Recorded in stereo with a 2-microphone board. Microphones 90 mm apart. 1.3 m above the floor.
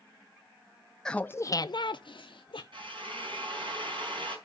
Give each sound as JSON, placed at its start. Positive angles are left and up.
{"t": 1.1, "sound": "laughter", "side_deg": 10, "distance_m": 0.5}
{"t": 2.7, "sound": "a drill", "side_deg": -65, "distance_m": 4.5}